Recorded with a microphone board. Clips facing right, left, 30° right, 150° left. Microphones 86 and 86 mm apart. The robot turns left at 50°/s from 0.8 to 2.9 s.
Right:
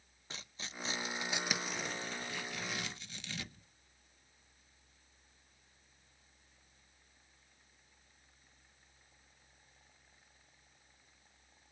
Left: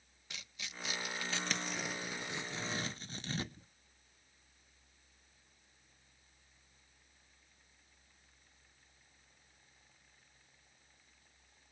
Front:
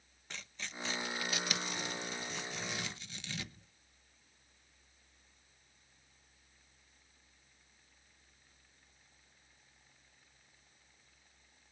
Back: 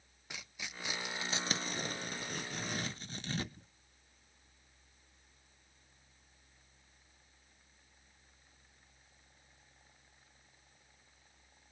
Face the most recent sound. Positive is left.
turn(degrees=120)